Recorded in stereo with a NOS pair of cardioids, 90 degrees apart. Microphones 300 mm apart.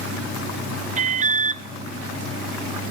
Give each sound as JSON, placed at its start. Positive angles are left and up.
{"t": 1.0, "sound": "an alarm", "azimuth_deg": -25, "distance_m": 0.5}